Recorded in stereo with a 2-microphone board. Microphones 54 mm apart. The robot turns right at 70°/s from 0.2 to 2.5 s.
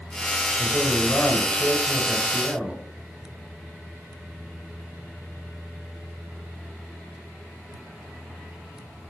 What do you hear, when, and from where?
0.6 s a man speaking: 80° left, 1.2 m; by 2.8 s 150° right, 1.2 m